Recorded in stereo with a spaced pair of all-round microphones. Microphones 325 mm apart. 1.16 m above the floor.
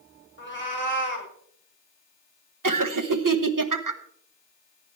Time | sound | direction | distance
0.4 | a cat meowing | 35° left (ahead or behind) | 1.8 m
2.6 | laughter | 75° right (ahead or behind) | 1.0 m